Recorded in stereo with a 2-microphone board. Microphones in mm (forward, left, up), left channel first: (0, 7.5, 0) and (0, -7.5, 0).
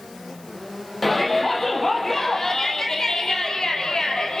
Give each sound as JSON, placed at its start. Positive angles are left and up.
{"t": 1.0, "sound": "a shout", "side_deg": 15, "distance_m": 5.0}